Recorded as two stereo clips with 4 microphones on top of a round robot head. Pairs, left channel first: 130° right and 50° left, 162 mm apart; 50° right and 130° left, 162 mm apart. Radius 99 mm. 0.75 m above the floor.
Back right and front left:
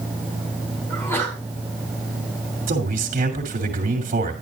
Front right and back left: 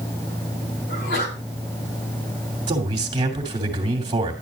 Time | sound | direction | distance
0.9 | a sneeze | 55° right | 6 m
2.7 | a man speaking | 70° left | 2.5 m